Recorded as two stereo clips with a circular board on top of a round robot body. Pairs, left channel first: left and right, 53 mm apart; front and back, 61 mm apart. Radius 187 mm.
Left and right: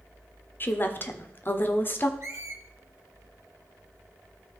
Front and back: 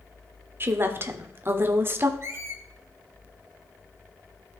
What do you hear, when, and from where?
0.6 s a woman speaking: 135° left, 1.5 m
2.2 s a squeak: 130° right, 1.3 m